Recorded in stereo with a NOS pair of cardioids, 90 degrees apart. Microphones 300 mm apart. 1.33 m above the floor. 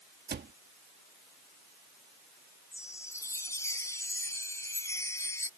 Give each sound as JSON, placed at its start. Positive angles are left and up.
{"t": 0.3, "sound": "a cupboard door", "azimuth_deg": -35}
{"t": 2.7, "sound": "a chime", "azimuth_deg": 10}